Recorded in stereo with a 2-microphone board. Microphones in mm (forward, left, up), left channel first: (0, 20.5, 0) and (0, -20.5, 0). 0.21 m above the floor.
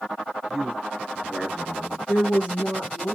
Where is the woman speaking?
45° left (ahead or behind), 3.5 m.